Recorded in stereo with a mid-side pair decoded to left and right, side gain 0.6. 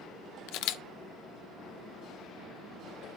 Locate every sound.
0.5 s a camera shutter: 70° left, 0.6 m